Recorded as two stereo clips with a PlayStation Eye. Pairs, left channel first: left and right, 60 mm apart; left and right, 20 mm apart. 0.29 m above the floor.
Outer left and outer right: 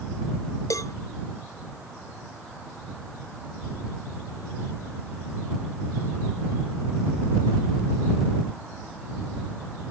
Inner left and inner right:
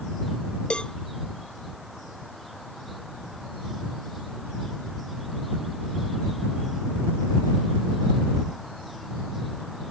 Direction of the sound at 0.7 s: 65° left (ahead or behind).